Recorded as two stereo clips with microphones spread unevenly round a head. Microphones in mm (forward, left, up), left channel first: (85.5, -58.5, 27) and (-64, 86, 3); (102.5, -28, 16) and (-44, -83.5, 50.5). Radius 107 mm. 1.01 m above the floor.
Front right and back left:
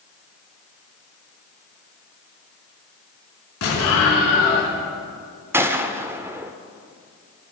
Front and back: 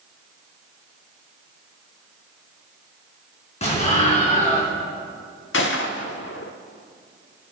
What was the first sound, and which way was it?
An explosion, 30° right.